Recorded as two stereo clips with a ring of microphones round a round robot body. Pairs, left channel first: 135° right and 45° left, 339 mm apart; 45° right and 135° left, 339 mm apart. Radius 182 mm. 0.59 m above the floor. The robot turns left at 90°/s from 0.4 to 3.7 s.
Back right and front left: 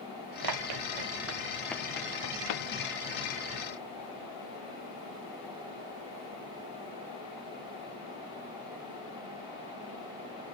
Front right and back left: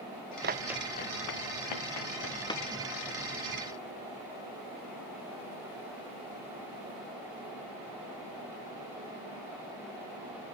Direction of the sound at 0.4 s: 75° left.